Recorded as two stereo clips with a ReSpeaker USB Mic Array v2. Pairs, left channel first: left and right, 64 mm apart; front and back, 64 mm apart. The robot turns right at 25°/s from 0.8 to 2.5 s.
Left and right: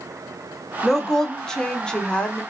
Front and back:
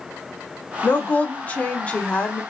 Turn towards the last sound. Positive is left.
turn(degrees=50)